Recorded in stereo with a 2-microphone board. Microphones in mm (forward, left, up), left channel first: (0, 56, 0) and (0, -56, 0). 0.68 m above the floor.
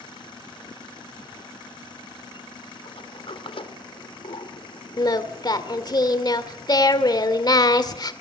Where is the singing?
40° left (ahead or behind), 1.7 m.